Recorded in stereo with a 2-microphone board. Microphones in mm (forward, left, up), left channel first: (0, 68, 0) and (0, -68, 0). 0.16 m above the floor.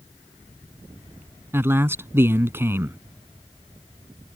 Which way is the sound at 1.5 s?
20° right (ahead or behind).